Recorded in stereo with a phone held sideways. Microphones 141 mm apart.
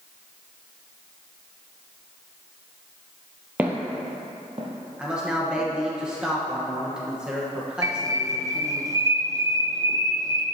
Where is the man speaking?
5° right (ahead or behind), 1.2 m.